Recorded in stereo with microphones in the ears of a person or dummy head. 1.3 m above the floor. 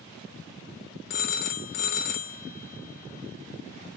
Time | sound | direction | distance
1.1 | a phone ringing | 40° left (ahead or behind) | 0.6 m